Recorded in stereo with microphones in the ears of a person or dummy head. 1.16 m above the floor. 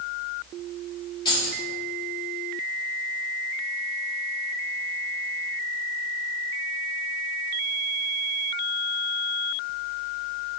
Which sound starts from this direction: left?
Keys jangling, at 1.2 s.